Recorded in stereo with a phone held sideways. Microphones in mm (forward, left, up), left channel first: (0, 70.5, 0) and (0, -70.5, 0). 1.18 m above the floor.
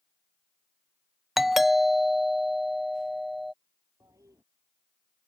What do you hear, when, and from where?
1.4 s a doorbell: centre (ahead or behind)
4.0 s a toilet flushing: 20° right (ahead or behind)